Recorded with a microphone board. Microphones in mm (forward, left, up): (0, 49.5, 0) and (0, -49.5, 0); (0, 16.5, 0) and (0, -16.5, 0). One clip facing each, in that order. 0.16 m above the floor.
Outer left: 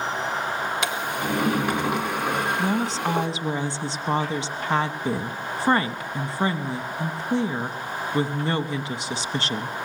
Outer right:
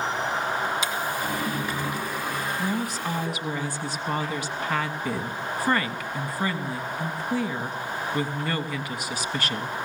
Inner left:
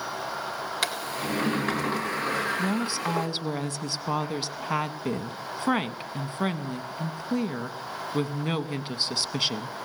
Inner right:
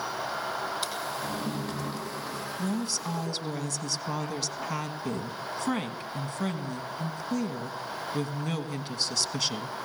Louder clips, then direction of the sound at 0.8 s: Outer left 1 dB, inner left 3 dB; 65° left (ahead or behind).